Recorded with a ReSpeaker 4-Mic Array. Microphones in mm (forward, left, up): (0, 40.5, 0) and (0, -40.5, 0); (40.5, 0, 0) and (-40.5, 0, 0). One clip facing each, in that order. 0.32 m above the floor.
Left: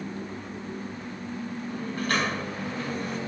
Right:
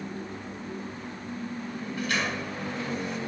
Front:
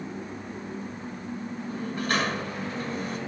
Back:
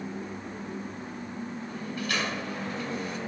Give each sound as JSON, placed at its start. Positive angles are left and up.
{"t": 1.7, "sound": "a sliding door", "azimuth_deg": 50, "distance_m": 3.5}